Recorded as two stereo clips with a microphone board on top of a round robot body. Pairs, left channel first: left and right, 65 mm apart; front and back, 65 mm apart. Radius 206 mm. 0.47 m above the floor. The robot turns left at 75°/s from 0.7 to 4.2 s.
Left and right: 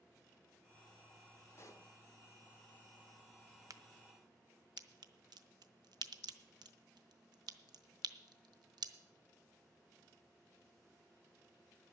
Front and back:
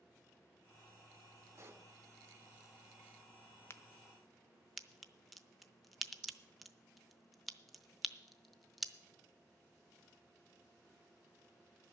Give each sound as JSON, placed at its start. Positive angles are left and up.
{"t": 1.6, "sound": "a pop", "azimuth_deg": 140, "distance_m": 1.3}
{"t": 3.7, "sound": "a crack", "azimuth_deg": -55, "distance_m": 0.7}